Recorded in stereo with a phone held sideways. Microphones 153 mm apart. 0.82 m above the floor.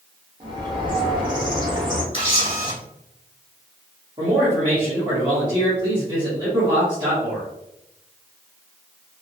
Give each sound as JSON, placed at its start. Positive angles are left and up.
{"t": 0.4, "sound": "a bird", "side_deg": -30, "distance_m": 1.0}
{"t": 2.1, "sound": "a camera shutter", "side_deg": 35, "distance_m": 1.1}
{"t": 4.2, "sound": "a man speaking", "side_deg": -30, "distance_m": 1.1}